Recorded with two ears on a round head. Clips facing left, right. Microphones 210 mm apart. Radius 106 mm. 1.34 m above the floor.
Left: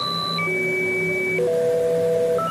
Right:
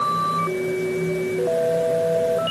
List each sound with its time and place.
Only background noise.